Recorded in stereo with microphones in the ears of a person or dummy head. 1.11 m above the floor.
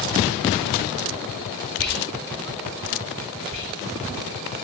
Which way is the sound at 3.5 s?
40° right (ahead or behind).